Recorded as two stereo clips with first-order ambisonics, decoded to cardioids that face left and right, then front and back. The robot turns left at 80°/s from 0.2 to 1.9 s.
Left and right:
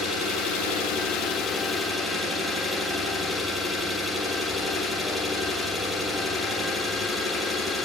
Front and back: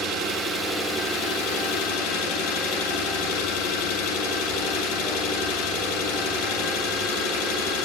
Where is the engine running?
135° left, 8.5 m; by 7.9 s straight ahead, 8.5 m.